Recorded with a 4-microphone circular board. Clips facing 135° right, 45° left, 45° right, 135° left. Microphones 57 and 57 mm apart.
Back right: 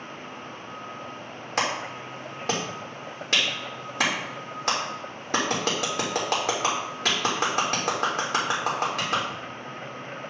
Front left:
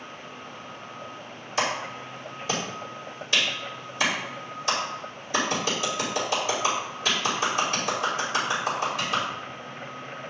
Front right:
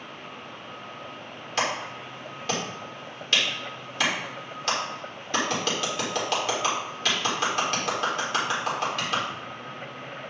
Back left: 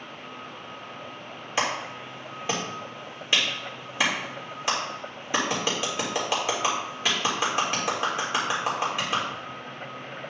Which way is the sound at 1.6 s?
150° right.